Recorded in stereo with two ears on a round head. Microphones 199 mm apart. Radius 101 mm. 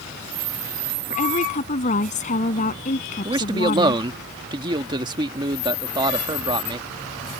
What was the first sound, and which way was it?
A woman speaking, 35° left (ahead or behind).